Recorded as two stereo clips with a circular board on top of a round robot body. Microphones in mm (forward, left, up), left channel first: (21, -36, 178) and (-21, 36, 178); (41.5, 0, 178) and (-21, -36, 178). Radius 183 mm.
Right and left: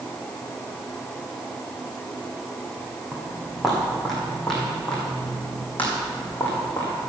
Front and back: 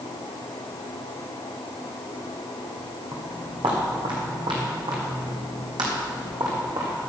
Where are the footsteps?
160° right, 3.5 m; by 6.9 s 120° right, 3.5 m.